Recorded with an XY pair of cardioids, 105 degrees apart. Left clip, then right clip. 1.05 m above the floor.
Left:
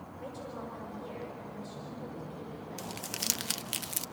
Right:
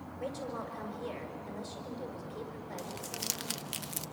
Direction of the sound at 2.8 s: 30° left.